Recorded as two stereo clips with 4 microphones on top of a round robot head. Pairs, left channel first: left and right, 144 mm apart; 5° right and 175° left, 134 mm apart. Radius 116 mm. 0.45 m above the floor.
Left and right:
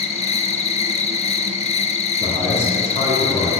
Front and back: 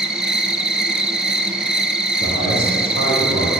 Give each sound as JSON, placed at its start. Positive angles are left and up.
{"t": 0.0, "sound": "an insect", "azimuth_deg": 95, "distance_m": 0.7}
{"t": 2.2, "sound": "a man speaking", "azimuth_deg": -10, "distance_m": 2.5}